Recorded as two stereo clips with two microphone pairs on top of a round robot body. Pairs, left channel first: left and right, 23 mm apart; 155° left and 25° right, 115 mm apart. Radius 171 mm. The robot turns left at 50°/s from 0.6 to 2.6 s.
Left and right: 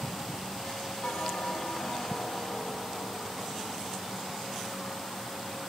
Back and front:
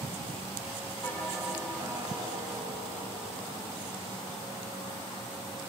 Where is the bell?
80° left, 3 m; by 5.0 s 5° left, 3 m.